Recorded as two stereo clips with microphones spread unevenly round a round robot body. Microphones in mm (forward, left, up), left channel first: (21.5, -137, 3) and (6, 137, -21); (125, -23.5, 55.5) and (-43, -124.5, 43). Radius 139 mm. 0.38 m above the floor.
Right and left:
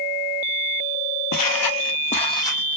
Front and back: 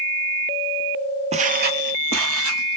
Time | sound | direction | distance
1.3 | footsteps | 95° right | 0.7 m